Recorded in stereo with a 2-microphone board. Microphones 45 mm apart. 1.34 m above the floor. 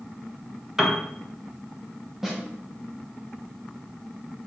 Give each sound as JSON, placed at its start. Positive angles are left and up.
{"t": 0.8, "sound": "a piano", "side_deg": -10, "distance_m": 0.5}
{"t": 2.2, "sound": "a snare drum", "side_deg": -5, "distance_m": 0.8}